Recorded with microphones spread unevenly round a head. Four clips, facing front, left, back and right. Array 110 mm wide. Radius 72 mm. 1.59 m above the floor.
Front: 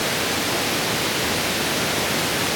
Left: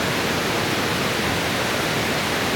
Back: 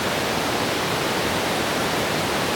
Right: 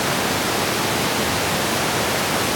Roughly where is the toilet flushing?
No toilet flushing in this recording.